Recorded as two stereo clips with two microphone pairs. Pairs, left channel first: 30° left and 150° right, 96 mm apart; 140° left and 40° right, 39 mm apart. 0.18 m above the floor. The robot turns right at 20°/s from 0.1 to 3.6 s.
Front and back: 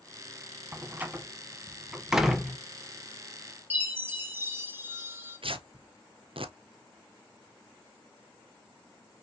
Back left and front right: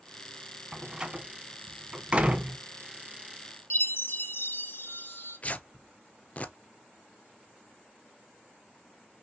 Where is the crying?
I don't hear crying.